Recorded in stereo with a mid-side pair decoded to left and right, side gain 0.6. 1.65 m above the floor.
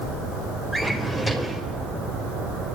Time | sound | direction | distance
0.7 | a drawer | 5° left | 3.5 m